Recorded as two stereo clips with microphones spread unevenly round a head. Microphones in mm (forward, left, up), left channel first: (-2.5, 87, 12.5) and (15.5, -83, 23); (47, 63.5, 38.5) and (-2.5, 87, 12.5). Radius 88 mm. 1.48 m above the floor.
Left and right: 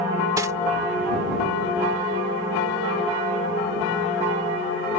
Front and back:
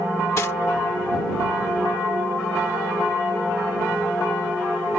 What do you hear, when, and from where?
0.4 s cutlery clinking: 15° right